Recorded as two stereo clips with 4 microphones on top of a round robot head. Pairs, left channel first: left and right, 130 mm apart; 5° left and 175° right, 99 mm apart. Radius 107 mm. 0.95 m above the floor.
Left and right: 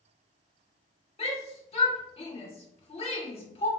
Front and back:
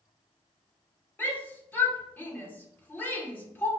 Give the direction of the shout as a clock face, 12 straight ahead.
10 o'clock.